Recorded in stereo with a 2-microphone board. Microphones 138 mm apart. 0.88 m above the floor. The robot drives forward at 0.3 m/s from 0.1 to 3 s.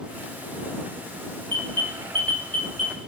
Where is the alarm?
35° right (ahead or behind), 1.4 m; by 3.1 s 45° right (ahead or behind), 1.1 m.